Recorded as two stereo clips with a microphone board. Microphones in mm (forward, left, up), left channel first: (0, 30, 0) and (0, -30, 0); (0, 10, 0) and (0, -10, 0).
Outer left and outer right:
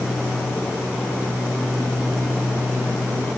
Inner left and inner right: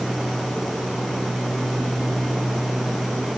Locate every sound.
Only background noise.